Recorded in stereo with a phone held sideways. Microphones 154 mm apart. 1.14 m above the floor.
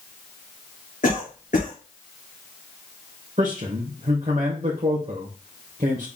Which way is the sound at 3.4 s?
60° right (ahead or behind).